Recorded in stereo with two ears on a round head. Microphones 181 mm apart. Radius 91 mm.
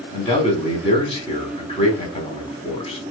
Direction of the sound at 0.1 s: 30° left (ahead or behind).